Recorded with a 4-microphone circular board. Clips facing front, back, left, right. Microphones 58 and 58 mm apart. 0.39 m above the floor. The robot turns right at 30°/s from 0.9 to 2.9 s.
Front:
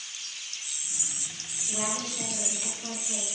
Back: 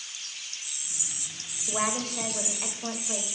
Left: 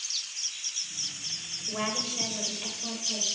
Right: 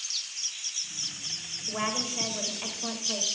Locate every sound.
1.7 s a woman speaking: 170° right, 1.3 m; by 3.3 s 135° right, 1.3 m